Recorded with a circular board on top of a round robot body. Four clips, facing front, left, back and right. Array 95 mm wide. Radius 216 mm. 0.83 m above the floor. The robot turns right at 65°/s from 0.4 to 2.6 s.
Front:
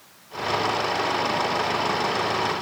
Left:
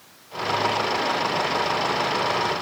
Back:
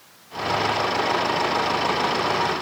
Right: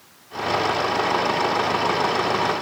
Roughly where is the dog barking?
No dog barking in this recording.